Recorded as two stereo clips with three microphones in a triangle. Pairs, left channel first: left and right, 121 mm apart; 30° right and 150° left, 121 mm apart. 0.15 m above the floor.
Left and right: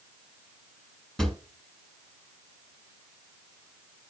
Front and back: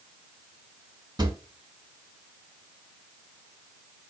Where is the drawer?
175° left, 1.0 m.